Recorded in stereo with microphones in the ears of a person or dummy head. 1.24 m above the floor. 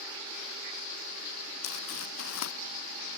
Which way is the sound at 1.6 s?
80° left.